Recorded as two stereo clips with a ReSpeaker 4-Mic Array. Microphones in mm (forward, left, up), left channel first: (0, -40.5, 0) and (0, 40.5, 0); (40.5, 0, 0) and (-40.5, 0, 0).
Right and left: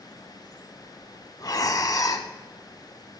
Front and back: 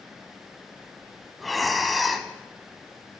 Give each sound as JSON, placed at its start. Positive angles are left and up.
{"t": 1.4, "sound": "breathing", "azimuth_deg": -90, "distance_m": 0.9}